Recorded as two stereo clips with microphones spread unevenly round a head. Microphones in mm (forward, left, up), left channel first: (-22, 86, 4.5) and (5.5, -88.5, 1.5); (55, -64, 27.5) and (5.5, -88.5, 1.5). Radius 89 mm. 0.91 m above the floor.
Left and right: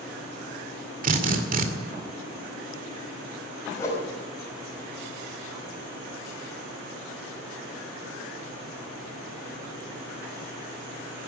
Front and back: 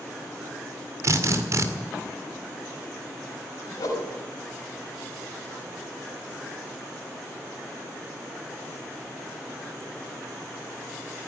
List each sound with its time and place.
1.0 s a drill: 125° right, 2 m
3.8 s a whoosh: 25° left, 5 m